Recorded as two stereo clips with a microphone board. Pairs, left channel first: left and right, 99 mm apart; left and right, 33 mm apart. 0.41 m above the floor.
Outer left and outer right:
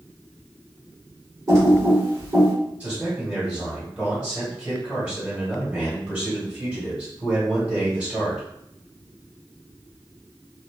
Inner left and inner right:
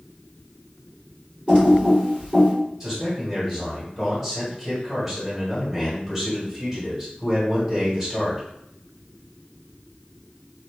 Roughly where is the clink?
No clink in this recording.